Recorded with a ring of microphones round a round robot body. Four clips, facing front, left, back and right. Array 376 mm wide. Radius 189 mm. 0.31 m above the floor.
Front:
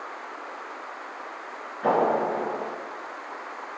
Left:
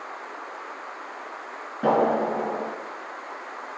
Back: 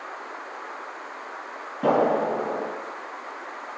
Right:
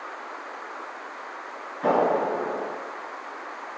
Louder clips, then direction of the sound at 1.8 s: Left 1 dB, back 1 dB; 145° left.